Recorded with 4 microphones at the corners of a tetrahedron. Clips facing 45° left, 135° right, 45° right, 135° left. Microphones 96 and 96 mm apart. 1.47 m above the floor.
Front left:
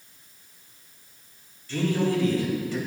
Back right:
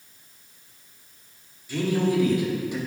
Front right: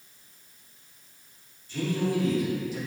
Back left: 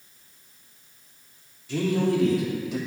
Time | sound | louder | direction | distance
1.7 | a man speaking | back right 1 dB, back left 4 dB | 145° left | 4 m